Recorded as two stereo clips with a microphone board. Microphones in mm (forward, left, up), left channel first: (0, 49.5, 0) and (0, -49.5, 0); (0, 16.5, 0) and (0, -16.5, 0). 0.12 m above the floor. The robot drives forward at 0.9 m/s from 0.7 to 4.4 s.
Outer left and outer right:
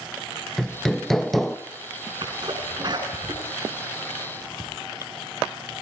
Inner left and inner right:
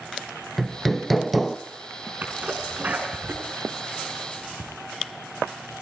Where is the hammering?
5° left (ahead or behind), 0.5 m; by 1.6 s centre (ahead or behind), 1.2 m.